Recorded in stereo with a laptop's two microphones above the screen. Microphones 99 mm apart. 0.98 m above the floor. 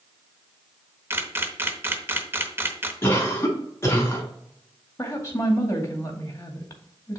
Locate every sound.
1.1 s a camera shutter: 20° right (ahead or behind), 0.7 m
3.0 s a cough: 25° left (ahead or behind), 3 m
5.0 s a woman speaking: 25° left (ahead or behind), 2 m